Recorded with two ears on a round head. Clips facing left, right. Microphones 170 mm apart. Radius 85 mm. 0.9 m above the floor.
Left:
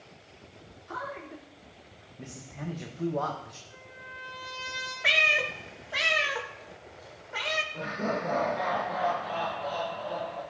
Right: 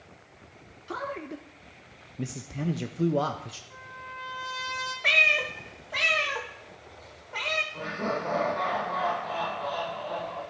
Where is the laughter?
10° left (ahead or behind), 4 m.